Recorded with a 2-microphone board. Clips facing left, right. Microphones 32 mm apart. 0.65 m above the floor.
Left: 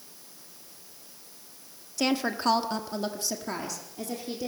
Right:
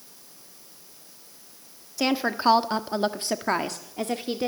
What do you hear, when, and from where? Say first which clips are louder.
2.0 s a woman speaking: right 3 dB; 10° right (ahead or behind), 1.4 m; by 4.5 s 50° right (ahead or behind), 1.9 m